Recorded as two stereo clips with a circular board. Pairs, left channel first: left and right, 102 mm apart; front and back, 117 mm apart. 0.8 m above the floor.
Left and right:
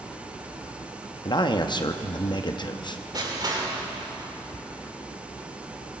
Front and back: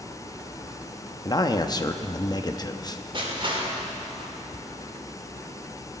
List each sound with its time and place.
1.2 s a man speaking: 50° left, 0.8 m
3.1 s crushing: 140° right, 3 m